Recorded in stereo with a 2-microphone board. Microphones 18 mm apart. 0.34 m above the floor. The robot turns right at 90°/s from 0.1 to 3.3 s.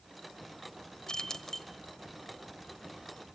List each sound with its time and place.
1.1 s keys jangling: 100° left, 1.0 m; by 1.7 s 155° left, 1.0 m